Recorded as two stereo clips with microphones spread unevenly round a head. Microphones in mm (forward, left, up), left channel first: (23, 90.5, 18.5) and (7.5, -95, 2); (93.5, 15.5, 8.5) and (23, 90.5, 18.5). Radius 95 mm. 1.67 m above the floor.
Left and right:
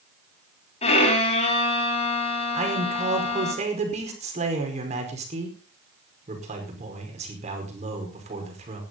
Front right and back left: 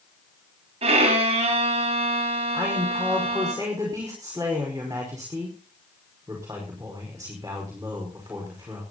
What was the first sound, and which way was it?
A violin, 140° left.